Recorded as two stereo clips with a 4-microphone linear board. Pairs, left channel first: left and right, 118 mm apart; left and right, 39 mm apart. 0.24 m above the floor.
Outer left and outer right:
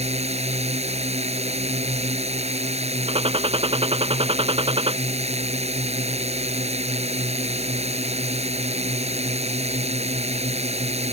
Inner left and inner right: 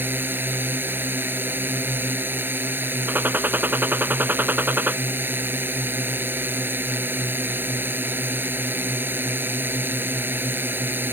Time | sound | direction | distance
0.0 | a drone | 65° right (ahead or behind) | ?
3.1 | a gunshot | 60° right (ahead or behind) | ?